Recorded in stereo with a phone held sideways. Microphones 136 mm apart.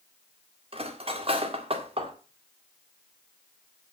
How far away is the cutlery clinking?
About 1.6 m.